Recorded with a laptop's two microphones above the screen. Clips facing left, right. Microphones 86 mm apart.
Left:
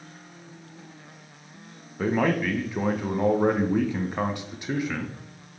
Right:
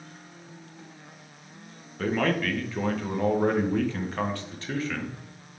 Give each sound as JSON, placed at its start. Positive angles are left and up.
{"t": 2.0, "sound": "a man speaking", "side_deg": 15, "distance_m": 0.8}